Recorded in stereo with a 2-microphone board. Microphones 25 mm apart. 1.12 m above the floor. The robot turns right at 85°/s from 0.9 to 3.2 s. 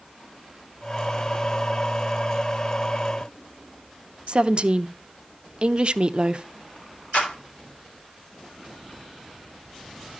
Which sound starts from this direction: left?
A clap, at 7.1 s.